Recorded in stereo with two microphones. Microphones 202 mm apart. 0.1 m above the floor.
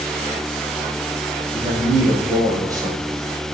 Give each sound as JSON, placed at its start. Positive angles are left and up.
{"t": 1.5, "sound": "a man speaking", "side_deg": -15, "distance_m": 5.5}